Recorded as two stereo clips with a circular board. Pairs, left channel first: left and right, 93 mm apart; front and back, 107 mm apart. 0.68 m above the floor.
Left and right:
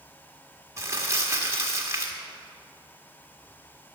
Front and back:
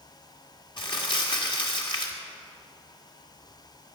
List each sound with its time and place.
0.8 s crumpling: 35° right, 1.6 m